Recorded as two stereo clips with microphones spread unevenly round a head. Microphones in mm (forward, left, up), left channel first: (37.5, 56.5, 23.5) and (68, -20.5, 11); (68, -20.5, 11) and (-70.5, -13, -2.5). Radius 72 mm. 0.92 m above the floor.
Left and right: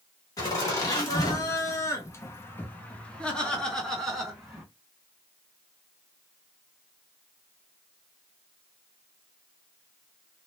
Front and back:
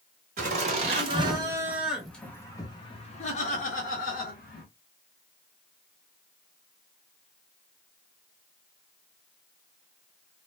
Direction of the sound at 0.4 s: 165° left.